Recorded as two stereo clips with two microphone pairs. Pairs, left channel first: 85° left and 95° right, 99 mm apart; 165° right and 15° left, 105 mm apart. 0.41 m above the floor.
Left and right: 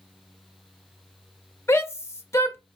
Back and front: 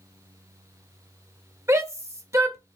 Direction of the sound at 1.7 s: 50° left.